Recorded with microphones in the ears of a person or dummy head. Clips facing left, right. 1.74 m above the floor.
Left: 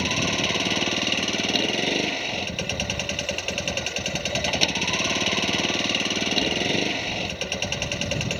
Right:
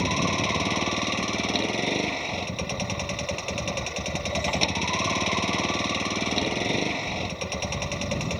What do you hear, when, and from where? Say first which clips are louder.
0.0 s a vehicle: even; 5° left (ahead or behind)